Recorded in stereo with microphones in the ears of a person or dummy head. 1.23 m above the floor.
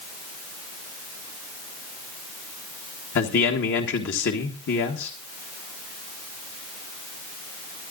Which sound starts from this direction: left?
A man speaking, at 3.1 s.